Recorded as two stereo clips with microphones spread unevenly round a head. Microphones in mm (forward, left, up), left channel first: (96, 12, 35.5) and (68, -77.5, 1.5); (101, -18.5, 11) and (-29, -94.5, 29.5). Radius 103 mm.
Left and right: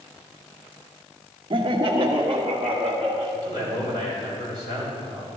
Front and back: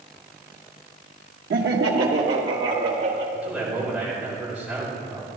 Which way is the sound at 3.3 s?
125° left.